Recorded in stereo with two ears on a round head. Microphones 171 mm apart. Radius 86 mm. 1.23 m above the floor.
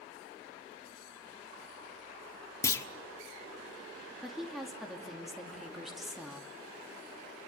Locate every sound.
2.6 s a clunk: 15° left (ahead or behind), 1.2 m
4.2 s a woman speaking: centre (ahead or behind), 2.5 m